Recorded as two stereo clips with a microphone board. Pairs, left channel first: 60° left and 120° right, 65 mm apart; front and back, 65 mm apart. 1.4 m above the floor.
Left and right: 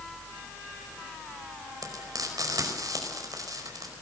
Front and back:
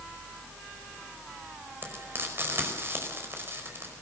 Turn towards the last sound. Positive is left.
turn(degrees=-130)